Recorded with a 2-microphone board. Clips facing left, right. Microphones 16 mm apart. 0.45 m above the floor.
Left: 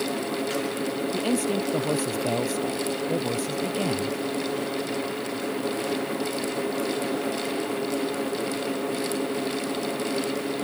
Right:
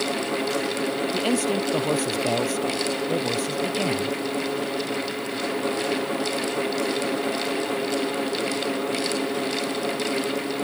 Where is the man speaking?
20° right (ahead or behind); by 4.2 s 10° right (ahead or behind).